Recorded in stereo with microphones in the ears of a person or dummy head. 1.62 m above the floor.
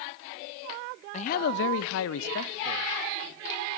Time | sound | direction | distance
1.1 | a man speaking | 45° left (ahead or behind) | 0.5 m